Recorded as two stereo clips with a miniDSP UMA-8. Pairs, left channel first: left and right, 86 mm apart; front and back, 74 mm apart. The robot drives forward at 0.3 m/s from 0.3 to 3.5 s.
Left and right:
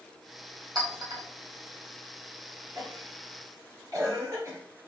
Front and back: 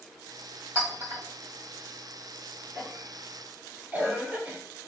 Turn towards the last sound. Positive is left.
turn(degrees=-125)